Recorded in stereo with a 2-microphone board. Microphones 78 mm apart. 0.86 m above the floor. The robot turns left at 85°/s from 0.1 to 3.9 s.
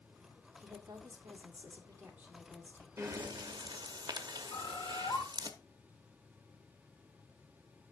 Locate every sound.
0.6 s a woman speaking: 25° right, 1.6 m; by 2.9 s 145° left, 1.6 m
3.0 s breathing: 35° right, 0.8 m; by 5.5 s 115° right, 0.8 m
4.5 s a bird: 80° left, 1.3 m